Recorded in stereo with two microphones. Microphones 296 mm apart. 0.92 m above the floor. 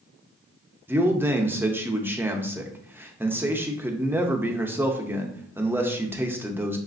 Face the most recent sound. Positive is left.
turn(degrees=-5)  # may be behind; listen again after turning